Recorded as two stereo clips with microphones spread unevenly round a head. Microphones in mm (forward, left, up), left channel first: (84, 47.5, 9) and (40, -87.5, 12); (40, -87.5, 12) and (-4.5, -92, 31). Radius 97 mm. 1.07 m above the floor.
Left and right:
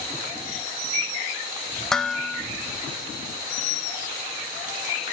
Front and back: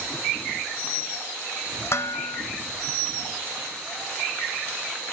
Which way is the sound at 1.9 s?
15° right.